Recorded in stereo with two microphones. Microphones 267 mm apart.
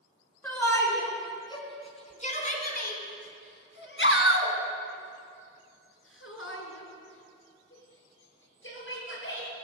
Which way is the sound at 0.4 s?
10° left (ahead or behind).